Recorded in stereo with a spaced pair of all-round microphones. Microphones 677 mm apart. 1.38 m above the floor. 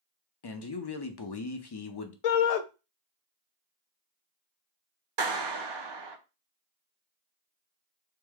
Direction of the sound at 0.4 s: 40° left (ahead or behind).